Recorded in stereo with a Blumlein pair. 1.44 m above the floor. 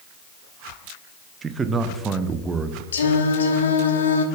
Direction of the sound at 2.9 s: 65° left.